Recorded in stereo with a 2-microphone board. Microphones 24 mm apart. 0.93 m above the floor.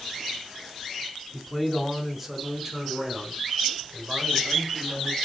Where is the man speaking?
5° left (ahead or behind), 2 m; by 5.2 s 30° right (ahead or behind), 4.5 m.